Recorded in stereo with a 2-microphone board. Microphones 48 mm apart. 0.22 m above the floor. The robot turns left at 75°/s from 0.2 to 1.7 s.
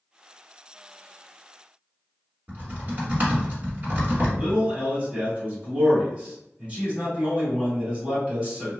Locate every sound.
2.5 s typing on a keyboard: 30° right (ahead or behind), 1.1 m
4.4 s a man speaking: 25° right (ahead or behind), 1.4 m